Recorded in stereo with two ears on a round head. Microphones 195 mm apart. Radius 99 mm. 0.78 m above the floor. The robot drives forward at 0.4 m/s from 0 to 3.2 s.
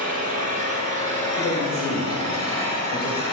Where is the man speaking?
75° left (ahead or behind), 4 m; by 3.2 s 65° left (ahead or behind), 4 m.